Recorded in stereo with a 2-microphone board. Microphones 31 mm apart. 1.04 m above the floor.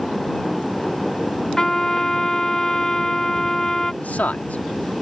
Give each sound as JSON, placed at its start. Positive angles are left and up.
{"t": 1.6, "sound": "a trumpet", "side_deg": 20}
{"t": 4.0, "sound": "a man speaking", "side_deg": 60}